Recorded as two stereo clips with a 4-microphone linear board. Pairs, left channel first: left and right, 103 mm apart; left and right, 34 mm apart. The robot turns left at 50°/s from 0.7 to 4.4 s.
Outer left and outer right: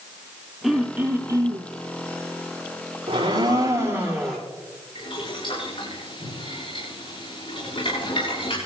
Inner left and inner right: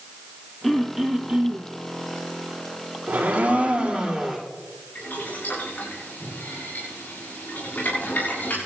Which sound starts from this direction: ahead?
Throat clearing, at 0.6 s.